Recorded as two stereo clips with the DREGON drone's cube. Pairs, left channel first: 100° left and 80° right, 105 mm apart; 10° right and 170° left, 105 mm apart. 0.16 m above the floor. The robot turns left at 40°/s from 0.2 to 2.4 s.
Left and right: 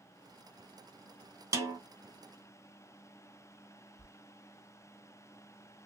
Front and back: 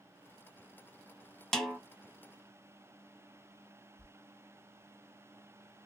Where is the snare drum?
90° right, 0.7 m; by 1.8 s 100° right, 0.7 m.